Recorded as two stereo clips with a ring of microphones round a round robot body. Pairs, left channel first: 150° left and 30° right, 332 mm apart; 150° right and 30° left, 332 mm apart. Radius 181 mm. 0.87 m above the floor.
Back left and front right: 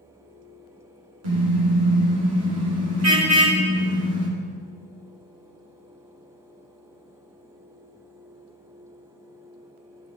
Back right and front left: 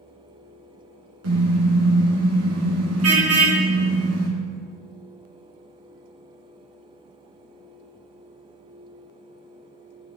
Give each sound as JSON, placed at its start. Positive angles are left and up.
{"t": 1.2, "sound": "a car horn", "azimuth_deg": -20, "distance_m": 6.5}